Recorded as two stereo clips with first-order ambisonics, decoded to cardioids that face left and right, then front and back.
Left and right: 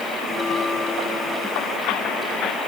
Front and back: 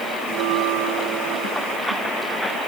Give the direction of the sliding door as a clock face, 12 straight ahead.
No sliding door in this recording.